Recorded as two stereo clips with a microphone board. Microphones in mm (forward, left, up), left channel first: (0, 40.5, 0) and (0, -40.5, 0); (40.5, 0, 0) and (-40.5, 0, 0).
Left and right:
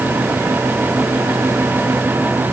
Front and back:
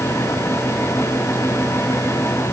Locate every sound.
Only background noise.